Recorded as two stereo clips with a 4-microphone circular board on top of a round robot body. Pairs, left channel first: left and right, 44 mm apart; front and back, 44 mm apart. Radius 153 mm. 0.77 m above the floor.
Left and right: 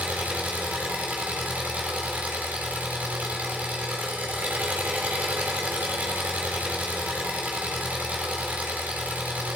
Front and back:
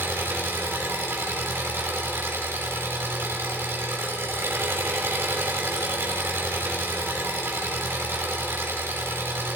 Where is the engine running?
145° right, 5 m.